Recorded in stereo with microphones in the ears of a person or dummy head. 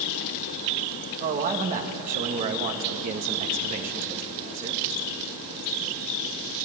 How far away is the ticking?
No ticking in this recording.